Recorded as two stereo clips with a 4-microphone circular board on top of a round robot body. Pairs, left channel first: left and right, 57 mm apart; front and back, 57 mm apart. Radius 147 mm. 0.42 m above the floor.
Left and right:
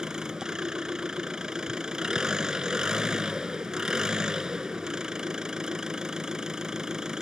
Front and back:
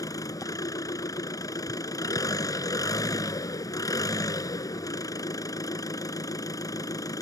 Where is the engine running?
10° right.